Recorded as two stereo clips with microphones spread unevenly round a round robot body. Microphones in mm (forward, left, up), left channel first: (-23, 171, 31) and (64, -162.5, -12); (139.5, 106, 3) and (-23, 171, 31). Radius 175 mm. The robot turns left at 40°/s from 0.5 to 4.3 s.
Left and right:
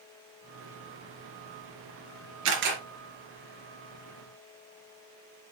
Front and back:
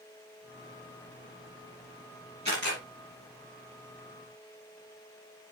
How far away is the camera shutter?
About 3.5 m.